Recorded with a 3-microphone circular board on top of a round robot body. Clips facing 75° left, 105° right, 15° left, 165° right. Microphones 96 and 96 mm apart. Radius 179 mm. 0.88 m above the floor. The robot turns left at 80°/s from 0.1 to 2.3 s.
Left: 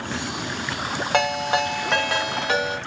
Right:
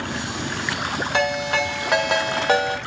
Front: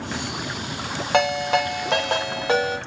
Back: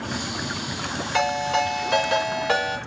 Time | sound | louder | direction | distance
1.1 | a ringtone | left 1 dB, front 2 dB | 40° left | 0.9 m